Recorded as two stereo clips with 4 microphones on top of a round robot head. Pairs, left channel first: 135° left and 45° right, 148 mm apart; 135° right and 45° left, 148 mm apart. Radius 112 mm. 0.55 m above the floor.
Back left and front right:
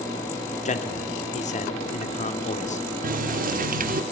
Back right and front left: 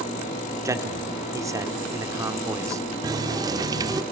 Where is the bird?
I don't hear a bird.